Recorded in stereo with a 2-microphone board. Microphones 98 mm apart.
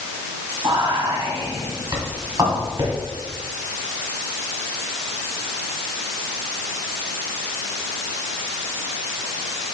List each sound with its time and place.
0.6 s whispering: 35° right (ahead or behind), 1.7 m